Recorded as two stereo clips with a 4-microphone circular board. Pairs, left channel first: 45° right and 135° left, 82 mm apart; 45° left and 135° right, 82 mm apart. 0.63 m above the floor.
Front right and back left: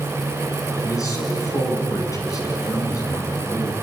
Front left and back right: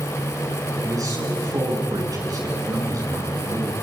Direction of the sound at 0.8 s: 90° right.